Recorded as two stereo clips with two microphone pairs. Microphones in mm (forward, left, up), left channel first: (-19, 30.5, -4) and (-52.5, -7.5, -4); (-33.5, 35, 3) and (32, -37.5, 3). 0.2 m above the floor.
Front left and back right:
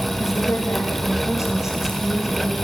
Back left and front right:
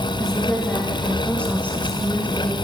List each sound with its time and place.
0.2 s a woman speaking: 50° left, 7.5 m; by 2.5 s 60° left, 8.5 m